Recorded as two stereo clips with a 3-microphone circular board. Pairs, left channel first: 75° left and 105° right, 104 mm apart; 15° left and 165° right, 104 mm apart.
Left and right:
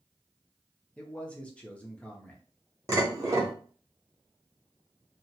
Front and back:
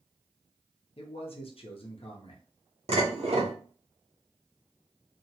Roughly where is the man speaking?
Ahead.